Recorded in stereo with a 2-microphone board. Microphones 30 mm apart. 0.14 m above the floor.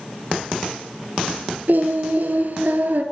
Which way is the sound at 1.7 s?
60° right (ahead or behind).